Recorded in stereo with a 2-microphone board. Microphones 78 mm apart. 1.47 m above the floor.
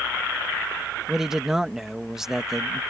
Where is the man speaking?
5° right (ahead or behind).